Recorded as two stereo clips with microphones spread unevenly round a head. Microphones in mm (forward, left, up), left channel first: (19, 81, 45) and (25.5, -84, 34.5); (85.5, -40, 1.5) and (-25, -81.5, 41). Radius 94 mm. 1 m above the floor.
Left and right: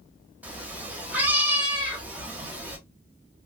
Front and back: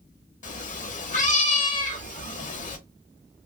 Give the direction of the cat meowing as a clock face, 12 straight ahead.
12 o'clock.